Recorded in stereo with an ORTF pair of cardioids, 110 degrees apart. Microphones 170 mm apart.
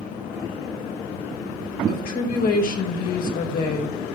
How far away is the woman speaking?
About 3.5 m.